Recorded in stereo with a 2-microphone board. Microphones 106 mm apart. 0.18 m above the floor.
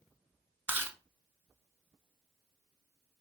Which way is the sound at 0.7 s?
20° right (ahead or behind).